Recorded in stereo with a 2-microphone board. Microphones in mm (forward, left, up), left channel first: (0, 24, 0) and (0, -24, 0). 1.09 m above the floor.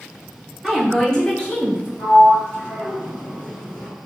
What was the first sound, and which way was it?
A woman speaking, centre (ahead or behind).